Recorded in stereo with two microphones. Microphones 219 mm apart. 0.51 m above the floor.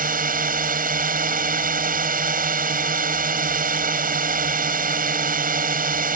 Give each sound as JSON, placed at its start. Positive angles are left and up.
{"t": 0.0, "sound": "a drone", "side_deg": -40}